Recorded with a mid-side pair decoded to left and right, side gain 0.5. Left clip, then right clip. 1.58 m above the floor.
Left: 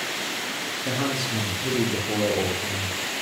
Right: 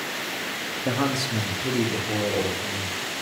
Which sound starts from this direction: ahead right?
A man speaking, at 0.8 s.